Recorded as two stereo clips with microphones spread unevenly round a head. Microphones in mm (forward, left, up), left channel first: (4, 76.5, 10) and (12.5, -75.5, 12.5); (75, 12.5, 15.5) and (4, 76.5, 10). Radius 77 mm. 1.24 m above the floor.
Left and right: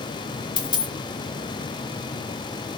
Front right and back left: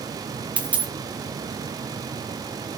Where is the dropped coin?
75° left, 0.6 m.